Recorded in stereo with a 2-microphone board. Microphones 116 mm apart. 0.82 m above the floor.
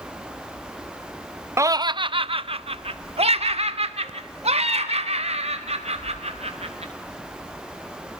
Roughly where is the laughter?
Right.